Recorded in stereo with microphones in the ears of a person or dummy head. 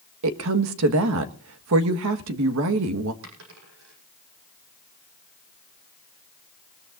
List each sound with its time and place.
0.2 s a woman speaking: 80° right, 1.6 m
3.2 s a dropped coin: 80° right, 8 m